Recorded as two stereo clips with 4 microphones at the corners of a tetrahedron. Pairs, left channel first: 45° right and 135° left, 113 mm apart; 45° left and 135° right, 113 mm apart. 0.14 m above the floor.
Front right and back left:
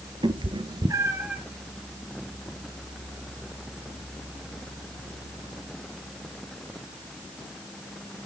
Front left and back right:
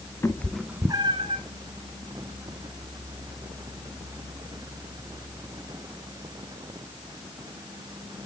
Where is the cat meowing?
110° left, 0.6 m; by 1.4 s 145° right, 0.7 m.